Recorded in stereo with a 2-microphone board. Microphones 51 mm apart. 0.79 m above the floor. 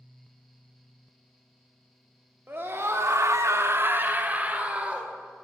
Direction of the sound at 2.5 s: 45° right (ahead or behind).